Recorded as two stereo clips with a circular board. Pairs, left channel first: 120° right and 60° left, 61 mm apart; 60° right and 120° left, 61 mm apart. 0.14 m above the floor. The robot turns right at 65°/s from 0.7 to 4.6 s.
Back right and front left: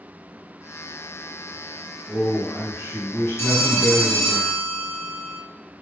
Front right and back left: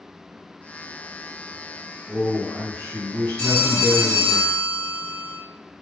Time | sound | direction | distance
2.1 | a man speaking | 160° left | 1.4 m
3.4 | a phone ringing | 120° right | 1.3 m